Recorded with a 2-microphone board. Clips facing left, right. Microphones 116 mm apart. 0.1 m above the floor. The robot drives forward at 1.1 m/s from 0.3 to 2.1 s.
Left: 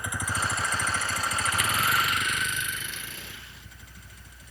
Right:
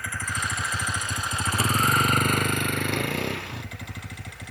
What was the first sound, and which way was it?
A vehicle, 20° left (ahead or behind).